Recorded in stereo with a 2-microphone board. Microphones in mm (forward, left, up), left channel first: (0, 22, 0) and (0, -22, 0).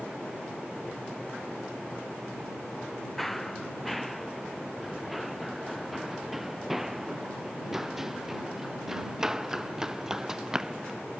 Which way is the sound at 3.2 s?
5° left (ahead or behind).